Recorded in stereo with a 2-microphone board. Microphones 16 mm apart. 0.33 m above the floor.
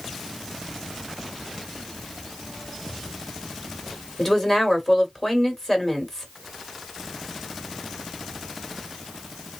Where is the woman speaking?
20° left (ahead or behind), 1.5 m.